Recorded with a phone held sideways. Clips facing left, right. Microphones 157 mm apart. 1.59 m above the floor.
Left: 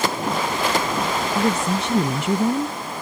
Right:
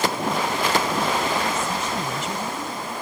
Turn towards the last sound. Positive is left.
turn(degrees=45)  # may be behind; listen again after turning